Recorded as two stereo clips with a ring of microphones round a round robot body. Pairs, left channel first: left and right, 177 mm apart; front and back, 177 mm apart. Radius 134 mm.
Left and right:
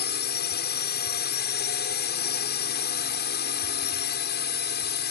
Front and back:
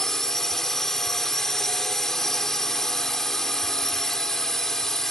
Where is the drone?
85° left.